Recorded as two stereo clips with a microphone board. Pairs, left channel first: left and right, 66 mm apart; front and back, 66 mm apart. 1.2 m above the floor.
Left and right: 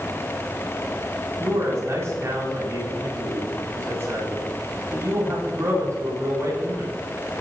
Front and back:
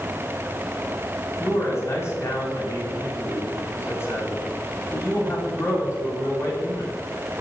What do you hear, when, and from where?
1.4 s a man speaking: 45° right, 9.5 m